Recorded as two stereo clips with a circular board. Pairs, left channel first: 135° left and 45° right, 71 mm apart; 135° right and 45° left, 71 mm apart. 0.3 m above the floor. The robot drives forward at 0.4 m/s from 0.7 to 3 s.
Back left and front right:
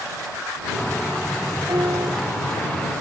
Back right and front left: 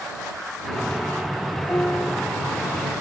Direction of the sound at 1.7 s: 75° right.